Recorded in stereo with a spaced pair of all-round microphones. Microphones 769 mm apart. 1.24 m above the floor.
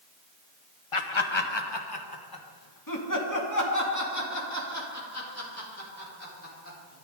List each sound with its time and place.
0.9 s laughter: 40° left (ahead or behind), 0.9 m; by 7.0 s 15° left (ahead or behind), 4.5 m